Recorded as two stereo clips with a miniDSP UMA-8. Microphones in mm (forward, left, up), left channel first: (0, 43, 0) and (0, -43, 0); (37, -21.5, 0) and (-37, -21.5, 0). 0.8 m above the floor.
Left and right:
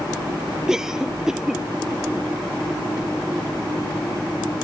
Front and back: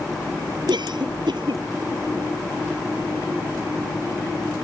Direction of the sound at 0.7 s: 175° right.